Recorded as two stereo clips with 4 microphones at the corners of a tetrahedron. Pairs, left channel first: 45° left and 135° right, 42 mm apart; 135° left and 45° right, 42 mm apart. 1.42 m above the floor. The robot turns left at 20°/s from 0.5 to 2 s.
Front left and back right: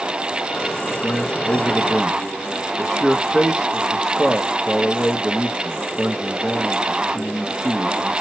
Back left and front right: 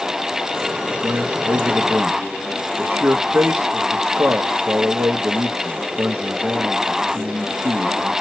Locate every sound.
0.9 s a man speaking: 10° right, 1.0 m; by 8.1 s 30° right, 1.0 m